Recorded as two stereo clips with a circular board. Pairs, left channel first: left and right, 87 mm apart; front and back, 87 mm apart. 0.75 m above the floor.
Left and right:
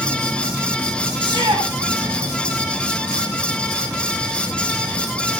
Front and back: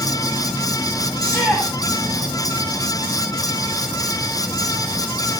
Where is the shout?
80° right, 6.5 m.